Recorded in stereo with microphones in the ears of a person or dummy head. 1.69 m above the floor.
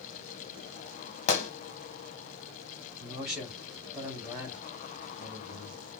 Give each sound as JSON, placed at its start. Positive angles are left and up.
{"t": 1.3, "sound": "a gunshot", "side_deg": 45, "distance_m": 1.2}
{"t": 3.0, "sound": "a man speaking", "side_deg": 0, "distance_m": 2.5}